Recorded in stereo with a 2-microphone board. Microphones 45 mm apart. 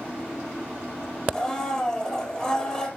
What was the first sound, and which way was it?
A blender, 20° left (ahead or behind).